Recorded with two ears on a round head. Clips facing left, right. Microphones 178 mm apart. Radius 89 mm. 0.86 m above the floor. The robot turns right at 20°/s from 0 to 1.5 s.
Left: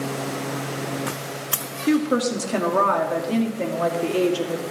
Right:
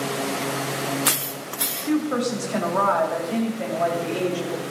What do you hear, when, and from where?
1.9 s a woman speaking: 50° left (ahead or behind), 2 m